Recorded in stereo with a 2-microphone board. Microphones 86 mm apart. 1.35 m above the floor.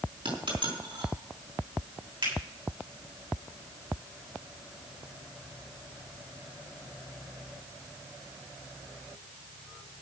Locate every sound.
0.2 s a dropped coin: 75° right (ahead or behind), 4.5 m
2.2 s a finger snap: 65° right (ahead or behind), 7.5 m